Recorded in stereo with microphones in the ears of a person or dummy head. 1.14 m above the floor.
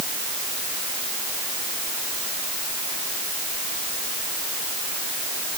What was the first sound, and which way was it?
Only background noise.